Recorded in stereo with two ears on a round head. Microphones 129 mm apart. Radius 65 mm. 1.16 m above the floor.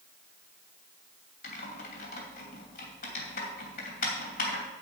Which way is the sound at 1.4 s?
65° left (ahead or behind).